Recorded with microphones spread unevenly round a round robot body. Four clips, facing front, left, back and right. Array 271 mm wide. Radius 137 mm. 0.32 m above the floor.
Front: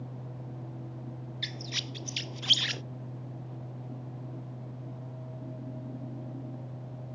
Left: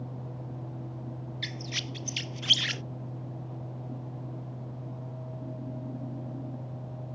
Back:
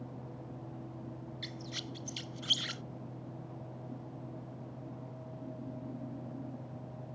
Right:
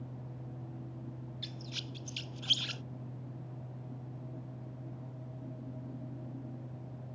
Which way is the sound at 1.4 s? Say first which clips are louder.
Left 7 dB, front 3 dB; 40° left.